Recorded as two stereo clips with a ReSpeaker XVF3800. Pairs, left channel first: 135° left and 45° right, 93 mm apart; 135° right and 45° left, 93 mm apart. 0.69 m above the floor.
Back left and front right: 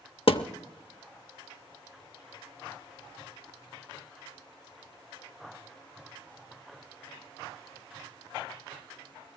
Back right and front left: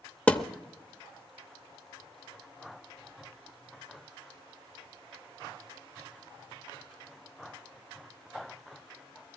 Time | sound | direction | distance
0.3 | a thud | 150° left | 0.7 m